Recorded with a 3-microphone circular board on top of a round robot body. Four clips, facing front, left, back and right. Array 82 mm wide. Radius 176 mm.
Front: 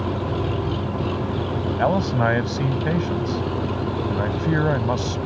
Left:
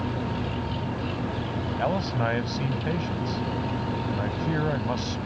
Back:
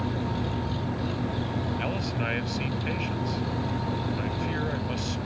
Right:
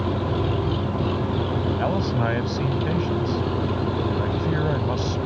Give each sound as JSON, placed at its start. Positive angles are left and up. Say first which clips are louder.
{"t": 0.0, "sound": "an engine running", "louder": "right 5 dB, front 5 dB", "azimuth_deg": -45}
{"t": 1.8, "sound": "a man speaking", "louder": "left 1 dB, front 10 dB", "azimuth_deg": 0}